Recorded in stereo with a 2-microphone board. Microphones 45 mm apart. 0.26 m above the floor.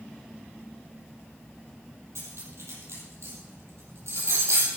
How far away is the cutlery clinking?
About 4 m.